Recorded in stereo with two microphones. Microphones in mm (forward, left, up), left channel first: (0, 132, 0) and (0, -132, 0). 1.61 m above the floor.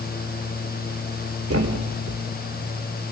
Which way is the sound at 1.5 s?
60° right (ahead or behind).